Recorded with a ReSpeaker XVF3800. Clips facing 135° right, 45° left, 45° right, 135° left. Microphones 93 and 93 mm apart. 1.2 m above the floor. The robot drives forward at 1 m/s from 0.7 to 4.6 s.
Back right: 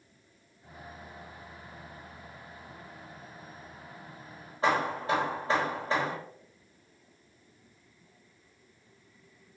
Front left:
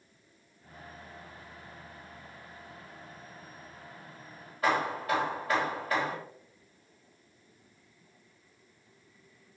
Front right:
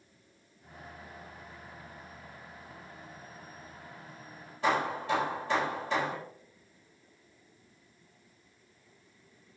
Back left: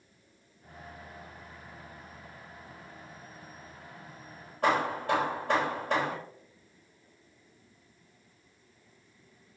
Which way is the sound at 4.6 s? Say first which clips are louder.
Back right 1 dB, back left 2 dB; 165° left.